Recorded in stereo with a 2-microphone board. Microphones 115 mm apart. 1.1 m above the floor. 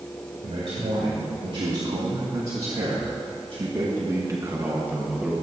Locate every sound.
0.4 s a man speaking: 80° right, 2.5 m; by 5.3 s 5° right (ahead or behind), 1.5 m